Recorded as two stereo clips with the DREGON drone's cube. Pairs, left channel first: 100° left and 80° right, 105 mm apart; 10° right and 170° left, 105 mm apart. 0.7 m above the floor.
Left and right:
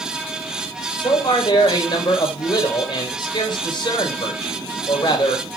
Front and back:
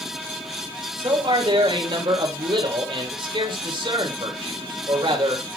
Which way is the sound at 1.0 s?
140° left.